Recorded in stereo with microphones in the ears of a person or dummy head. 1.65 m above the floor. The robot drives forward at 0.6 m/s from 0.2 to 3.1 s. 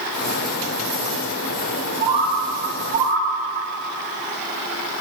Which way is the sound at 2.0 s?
45° right (ahead or behind).